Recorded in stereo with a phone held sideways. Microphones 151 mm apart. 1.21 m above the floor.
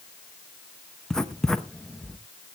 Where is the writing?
5° left (ahead or behind), 0.8 m.